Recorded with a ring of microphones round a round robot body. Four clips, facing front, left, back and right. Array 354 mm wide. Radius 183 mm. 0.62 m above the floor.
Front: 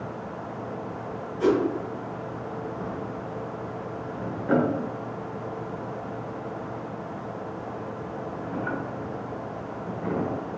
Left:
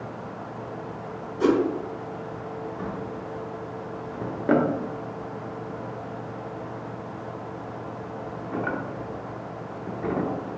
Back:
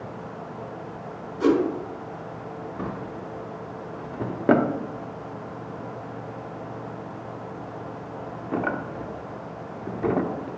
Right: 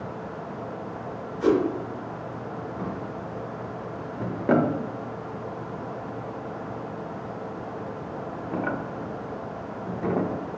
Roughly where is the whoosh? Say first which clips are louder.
Even, back 2 dB; left.